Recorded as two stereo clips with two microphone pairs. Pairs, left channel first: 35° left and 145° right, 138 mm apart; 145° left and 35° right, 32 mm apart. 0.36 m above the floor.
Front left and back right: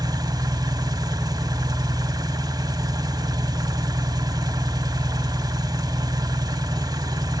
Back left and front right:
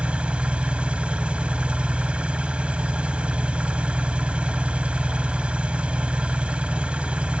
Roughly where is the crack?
I don't hear a crack.